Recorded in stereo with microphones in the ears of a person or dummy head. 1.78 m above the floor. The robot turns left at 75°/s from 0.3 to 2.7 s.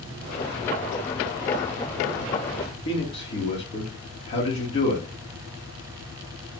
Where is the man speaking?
40° left (ahead or behind), 1.2 m.